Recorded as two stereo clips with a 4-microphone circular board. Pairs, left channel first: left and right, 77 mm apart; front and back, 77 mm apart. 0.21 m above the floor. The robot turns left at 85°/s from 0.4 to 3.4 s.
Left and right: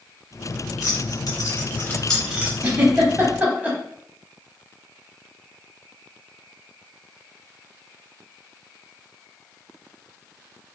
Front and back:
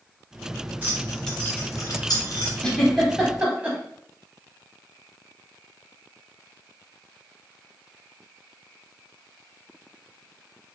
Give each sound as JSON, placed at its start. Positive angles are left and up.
{"t": 0.8, "sound": "keys jangling", "azimuth_deg": 125, "distance_m": 1.6}
{"t": 2.6, "sound": "a giggle", "azimuth_deg": -60, "distance_m": 0.8}